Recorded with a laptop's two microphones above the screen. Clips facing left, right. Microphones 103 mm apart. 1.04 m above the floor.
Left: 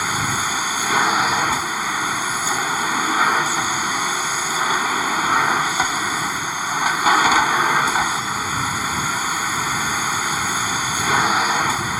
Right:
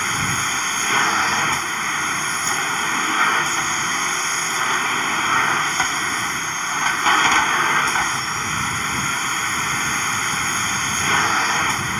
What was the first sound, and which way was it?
A machine running, 10° left (ahead or behind).